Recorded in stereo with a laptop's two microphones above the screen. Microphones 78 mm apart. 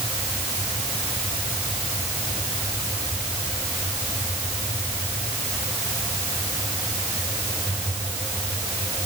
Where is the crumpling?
I don't hear crumpling.